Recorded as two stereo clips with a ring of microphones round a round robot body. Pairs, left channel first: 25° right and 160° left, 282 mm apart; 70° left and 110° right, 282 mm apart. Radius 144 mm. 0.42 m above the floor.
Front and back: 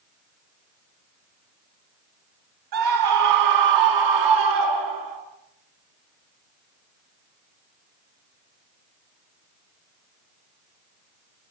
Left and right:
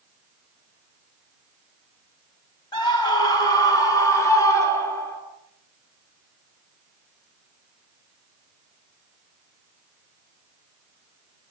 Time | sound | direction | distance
2.7 | a scream | 145° left | 4.5 m